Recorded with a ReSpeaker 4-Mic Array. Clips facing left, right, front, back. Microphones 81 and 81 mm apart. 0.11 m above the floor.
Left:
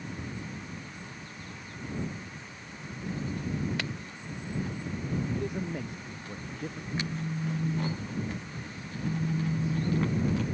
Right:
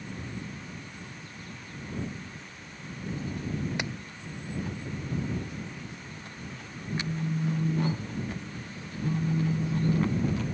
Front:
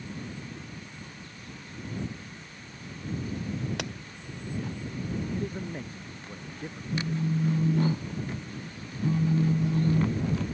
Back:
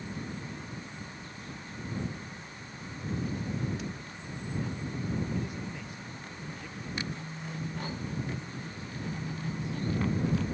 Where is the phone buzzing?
20° right.